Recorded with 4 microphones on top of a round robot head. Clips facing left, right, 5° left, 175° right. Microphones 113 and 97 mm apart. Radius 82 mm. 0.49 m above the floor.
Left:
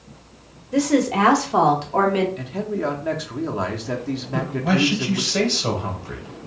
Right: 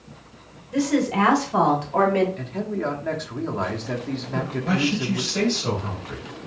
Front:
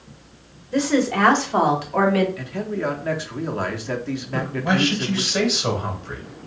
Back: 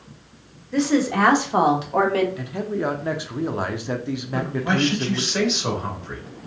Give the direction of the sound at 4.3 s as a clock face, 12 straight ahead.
9 o'clock.